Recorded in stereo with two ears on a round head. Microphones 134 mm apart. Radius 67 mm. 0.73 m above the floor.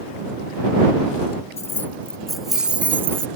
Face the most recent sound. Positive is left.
turn(degrees=-20)  # may be behind; listen again after turning